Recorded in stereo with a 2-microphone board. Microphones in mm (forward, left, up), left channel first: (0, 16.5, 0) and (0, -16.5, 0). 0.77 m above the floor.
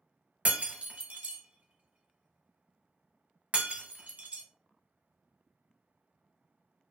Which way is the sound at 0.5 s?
40° right (ahead or behind).